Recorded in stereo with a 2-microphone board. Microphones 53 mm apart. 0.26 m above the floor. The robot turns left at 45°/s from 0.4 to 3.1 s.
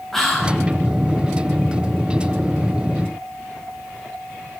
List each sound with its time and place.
0.1 s whispering: 5° left (ahead or behind), 1.5 m; by 0.6 s 10° left (ahead or behind), 1.5 m